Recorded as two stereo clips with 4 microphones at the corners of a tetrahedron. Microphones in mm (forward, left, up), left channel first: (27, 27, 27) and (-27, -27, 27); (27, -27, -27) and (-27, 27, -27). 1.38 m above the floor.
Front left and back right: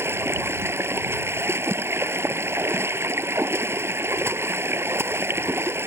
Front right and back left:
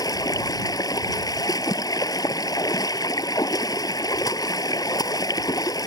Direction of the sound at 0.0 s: 80° right.